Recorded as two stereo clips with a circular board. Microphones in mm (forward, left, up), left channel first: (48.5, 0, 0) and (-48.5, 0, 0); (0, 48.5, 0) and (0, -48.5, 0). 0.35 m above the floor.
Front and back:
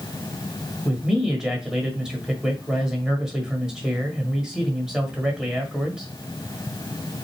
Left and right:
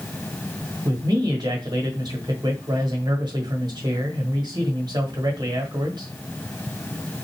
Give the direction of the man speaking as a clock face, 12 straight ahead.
4 o'clock.